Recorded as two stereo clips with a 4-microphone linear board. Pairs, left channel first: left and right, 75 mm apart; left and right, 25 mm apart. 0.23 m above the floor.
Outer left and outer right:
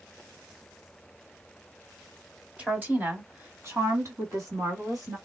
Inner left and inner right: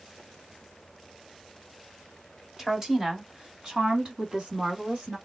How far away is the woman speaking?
About 1.6 m.